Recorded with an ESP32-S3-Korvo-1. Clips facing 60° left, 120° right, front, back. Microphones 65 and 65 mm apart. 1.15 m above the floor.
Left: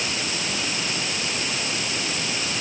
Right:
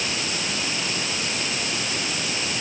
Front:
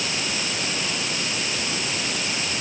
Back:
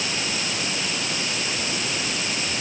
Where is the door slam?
No door slam in this recording.